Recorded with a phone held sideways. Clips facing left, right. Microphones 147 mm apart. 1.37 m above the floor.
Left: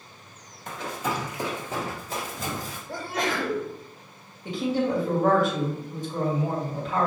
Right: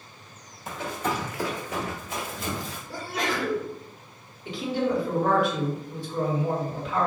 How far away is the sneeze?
About 2 m.